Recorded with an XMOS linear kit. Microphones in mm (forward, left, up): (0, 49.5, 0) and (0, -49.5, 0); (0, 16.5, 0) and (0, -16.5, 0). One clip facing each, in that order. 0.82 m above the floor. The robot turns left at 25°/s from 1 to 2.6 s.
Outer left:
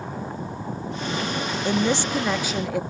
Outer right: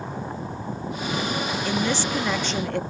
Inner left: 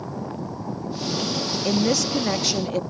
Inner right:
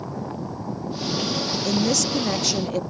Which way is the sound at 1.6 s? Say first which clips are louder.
Outer left 4 dB, inner left 2 dB; 25° left (ahead or behind).